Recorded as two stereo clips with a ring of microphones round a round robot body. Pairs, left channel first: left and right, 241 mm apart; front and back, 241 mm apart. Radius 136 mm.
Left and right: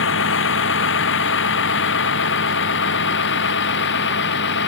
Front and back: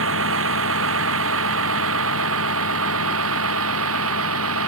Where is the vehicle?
135° left; by 4.7 s 140° left.